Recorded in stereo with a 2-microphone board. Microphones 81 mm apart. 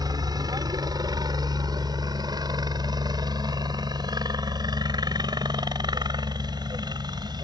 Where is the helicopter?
55° right (ahead or behind); by 7.5 s 60° right (ahead or behind).